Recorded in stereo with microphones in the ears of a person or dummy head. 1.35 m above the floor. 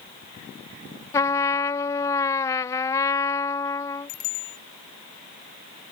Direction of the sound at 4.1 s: 45° left (ahead or behind).